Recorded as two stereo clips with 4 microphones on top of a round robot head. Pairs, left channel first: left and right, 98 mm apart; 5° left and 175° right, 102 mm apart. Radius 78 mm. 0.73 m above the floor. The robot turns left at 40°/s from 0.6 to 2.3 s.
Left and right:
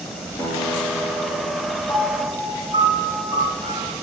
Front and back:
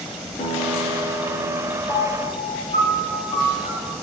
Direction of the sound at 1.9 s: 65° left.